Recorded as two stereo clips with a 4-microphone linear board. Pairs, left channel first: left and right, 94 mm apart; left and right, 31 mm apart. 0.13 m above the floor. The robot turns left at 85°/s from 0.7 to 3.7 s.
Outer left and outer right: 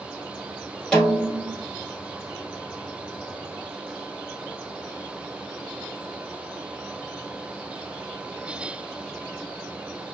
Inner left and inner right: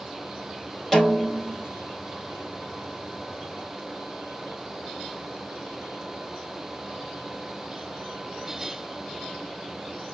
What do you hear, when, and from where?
0.9 s a snare drum: 10° left, 1.1 m; by 1.6 s 50° right, 1.1 m